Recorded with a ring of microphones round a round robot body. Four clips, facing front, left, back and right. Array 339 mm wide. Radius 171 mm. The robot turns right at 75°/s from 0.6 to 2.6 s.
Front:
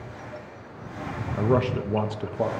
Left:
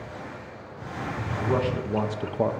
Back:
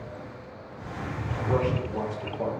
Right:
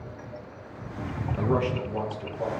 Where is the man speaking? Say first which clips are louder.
Even, front 3 dB; 15° right, 0.7 m; by 2.5 s 70° left, 0.7 m.